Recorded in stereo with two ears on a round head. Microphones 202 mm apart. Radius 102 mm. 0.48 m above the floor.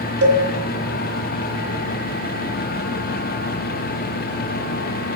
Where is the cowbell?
50° right (ahead or behind), 3.5 m.